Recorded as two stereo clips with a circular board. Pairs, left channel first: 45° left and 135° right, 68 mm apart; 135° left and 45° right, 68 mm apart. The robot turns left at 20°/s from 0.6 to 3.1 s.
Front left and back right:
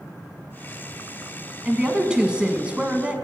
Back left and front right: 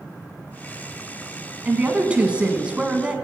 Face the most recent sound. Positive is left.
turn(degrees=-100)